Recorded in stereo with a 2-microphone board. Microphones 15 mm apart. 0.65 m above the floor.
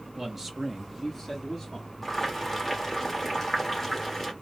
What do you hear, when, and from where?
0.2 s a man speaking: 25° right (ahead or behind), 0.8 m; by 2.1 s 20° left (ahead or behind), 1.4 m
2.0 s boiling: 10° left (ahead or behind), 1.4 m